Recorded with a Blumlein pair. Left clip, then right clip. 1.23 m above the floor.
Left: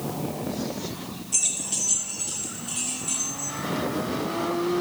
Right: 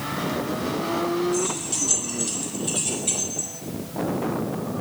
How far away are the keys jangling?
About 1.0 m.